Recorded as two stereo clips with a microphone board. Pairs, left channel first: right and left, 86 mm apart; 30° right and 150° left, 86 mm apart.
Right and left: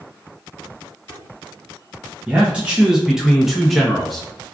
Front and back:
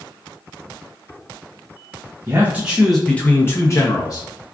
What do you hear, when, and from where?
2.3 s a man speaking: 145° left, 0.7 m; by 4.3 s 5° right, 1.0 m